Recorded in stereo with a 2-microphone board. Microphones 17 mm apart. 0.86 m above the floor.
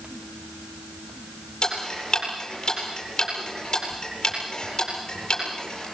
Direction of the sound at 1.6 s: 45° left (ahead or behind).